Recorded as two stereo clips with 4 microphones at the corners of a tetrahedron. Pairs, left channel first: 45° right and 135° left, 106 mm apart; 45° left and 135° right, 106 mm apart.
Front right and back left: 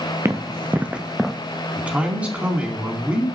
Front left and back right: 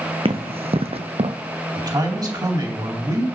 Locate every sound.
0.2 s running footsteps: 160° right, 1.1 m; by 1.4 s 130° right, 0.6 m
1.8 s a man speaking: 155° right, 2 m